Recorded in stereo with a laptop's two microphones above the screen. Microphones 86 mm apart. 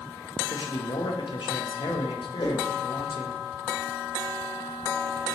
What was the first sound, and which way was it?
A man speaking, 70° left (ahead or behind).